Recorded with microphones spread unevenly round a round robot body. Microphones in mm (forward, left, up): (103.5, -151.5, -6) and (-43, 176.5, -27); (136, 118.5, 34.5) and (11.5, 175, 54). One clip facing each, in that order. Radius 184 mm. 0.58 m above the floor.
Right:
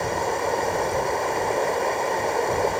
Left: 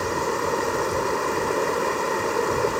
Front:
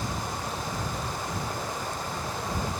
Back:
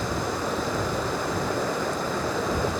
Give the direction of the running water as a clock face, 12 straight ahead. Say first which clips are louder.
Left 1 dB, back 6 dB; 6 o'clock.